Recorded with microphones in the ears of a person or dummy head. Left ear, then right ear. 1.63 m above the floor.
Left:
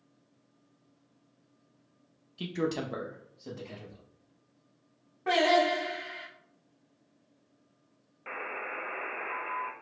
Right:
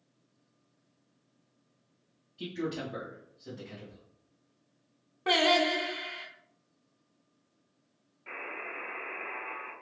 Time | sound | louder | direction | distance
2.4 | a man speaking | left 3 dB | 40° left (ahead or behind) | 0.5 m
5.3 | singing | even | 20° right (ahead or behind) | 0.8 m
8.3 | a buzzer | left 2 dB | 55° left (ahead or behind) | 0.7 m